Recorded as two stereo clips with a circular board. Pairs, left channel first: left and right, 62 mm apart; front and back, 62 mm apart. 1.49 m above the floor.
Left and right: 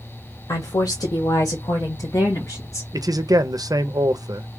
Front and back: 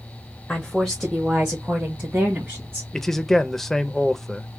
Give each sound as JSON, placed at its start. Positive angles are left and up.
{"t": 0.5, "sound": "a woman speaking", "azimuth_deg": 75, "distance_m": 0.7}
{"t": 2.9, "sound": "a man speaking", "azimuth_deg": -85, "distance_m": 0.6}